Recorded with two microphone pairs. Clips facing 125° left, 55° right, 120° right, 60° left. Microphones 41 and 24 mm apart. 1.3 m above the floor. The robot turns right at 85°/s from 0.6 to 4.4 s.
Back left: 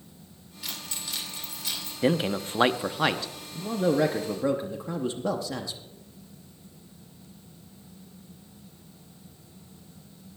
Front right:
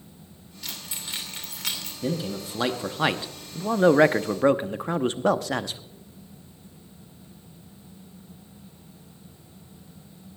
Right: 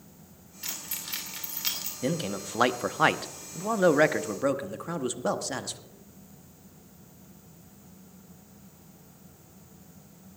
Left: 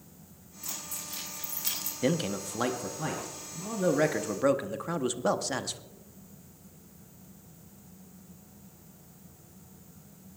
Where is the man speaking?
130° left, 0.7 m; by 5.8 s 25° right, 0.7 m.